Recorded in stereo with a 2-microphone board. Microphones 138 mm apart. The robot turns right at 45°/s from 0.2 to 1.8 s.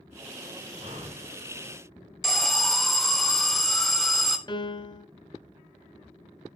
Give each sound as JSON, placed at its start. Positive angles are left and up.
{"t": 0.8, "sound": "breathing", "side_deg": -65, "distance_m": 2.5}
{"t": 2.2, "sound": "an alarm", "side_deg": 0, "distance_m": 0.8}
{"t": 4.5, "sound": "a piano", "side_deg": 30, "distance_m": 0.6}